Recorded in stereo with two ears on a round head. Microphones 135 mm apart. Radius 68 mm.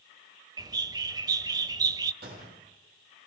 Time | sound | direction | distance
0.6 | a bird | 25° right (ahead or behind) | 1.3 m
2.2 | a gunshot | 65° right (ahead or behind) | 9 m